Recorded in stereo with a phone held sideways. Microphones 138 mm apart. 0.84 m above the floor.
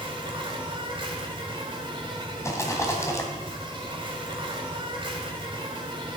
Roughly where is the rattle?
Left.